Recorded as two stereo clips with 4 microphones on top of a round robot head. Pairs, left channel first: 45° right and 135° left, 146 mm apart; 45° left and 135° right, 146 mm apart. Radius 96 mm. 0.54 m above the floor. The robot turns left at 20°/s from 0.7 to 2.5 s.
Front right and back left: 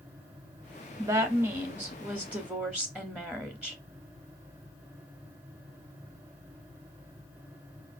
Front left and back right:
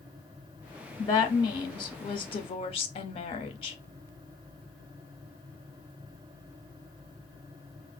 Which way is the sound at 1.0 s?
85° left.